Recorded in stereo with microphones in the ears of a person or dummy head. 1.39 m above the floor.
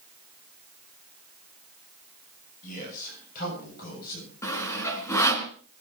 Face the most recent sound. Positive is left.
turn(degrees=15)  # may be behind; listen again after turning